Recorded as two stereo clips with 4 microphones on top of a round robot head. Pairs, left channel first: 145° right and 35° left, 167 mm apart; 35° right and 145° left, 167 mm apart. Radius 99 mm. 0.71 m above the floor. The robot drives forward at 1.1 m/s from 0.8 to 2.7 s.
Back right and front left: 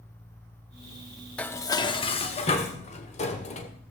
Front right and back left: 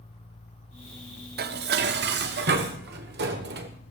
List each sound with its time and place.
1.4 s dishes clattering: 135° left, 0.8 m; by 3.7 s 165° left, 2 m